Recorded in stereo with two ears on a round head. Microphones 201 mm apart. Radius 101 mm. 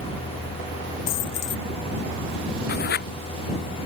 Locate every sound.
1.1 s a dropped coin: 55° left (ahead or behind)
2.7 s writing: 45° left (ahead or behind)